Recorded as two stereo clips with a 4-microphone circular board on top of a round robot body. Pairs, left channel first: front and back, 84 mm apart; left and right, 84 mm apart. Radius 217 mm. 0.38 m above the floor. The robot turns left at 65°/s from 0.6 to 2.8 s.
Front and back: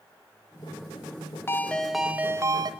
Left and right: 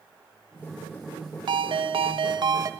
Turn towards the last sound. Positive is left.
turn(degrees=-150)